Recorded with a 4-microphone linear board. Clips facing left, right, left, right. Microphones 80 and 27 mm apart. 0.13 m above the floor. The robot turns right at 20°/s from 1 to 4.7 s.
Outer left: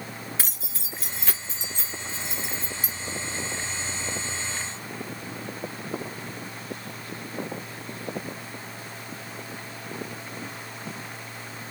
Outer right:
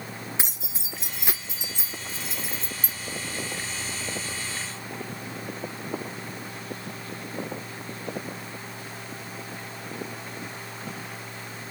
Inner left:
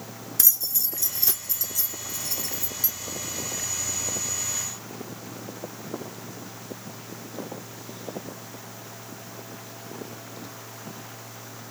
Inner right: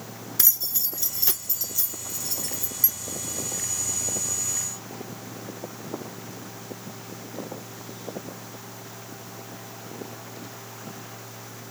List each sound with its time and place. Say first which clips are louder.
0.4 s keys jangling: outer right 1 dB, even; 20° right (ahead or behind), 1.0 m; by 2.9 s 10° left (ahead or behind), 1.0 m